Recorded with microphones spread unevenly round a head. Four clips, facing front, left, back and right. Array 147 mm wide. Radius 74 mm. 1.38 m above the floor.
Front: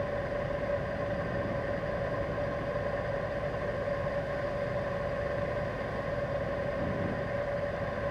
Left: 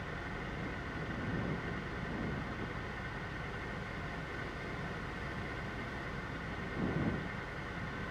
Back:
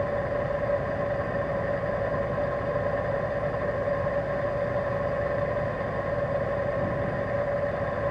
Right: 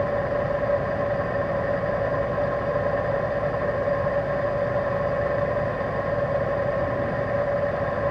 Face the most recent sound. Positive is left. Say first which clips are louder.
# right 20 dB, back 6 dB
turn(degrees=-110)